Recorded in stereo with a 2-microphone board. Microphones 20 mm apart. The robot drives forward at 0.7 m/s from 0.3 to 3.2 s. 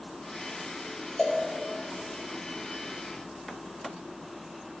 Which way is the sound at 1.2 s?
45° left (ahead or behind).